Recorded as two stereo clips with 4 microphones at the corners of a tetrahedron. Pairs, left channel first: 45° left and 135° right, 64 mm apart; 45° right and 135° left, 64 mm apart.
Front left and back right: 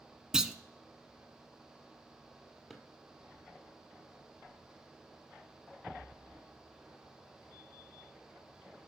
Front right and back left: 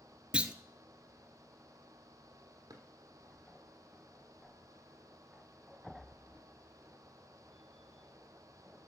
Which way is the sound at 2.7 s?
140° left.